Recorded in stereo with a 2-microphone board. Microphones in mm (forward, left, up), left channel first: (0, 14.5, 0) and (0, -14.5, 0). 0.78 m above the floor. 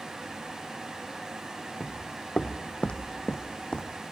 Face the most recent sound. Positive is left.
turn(degrees=40)  # may be behind; listen again after turning